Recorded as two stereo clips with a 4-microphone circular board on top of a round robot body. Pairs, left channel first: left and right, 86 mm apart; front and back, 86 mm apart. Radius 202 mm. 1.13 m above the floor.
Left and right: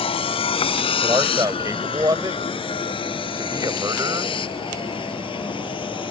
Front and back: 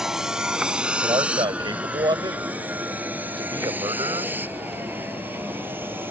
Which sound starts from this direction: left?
A vehicle, at 0.0 s.